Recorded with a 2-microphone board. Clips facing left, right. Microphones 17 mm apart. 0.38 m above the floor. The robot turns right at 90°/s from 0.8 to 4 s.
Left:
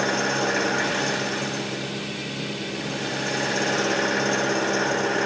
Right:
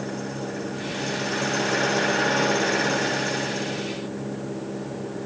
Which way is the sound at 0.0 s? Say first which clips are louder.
Left 8 dB; 135° left.